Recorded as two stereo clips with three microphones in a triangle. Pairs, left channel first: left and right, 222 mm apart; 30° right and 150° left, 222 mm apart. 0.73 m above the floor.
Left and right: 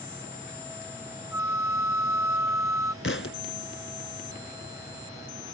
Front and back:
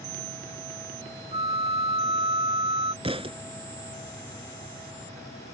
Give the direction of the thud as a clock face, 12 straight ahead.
9 o'clock.